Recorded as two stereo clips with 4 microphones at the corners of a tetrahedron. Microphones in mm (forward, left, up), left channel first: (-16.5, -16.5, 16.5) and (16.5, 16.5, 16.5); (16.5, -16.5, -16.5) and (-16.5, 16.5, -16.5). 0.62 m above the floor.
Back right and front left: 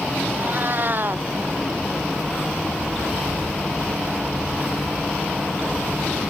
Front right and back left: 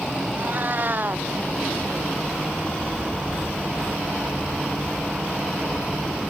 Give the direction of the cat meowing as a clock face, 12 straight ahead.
9 o'clock.